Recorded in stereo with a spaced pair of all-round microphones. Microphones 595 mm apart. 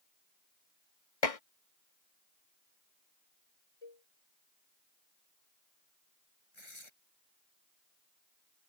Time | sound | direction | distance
1.2 | dishes clattering | 65° left (ahead or behind) | ?
3.8 | a cowbell | 60° left (ahead or behind) | ?
6.5 | tearing paper | 50° left (ahead or behind) | ?